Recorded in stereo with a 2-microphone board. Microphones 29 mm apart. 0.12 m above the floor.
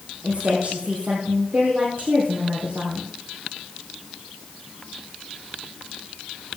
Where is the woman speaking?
45° right (ahead or behind), 4 m.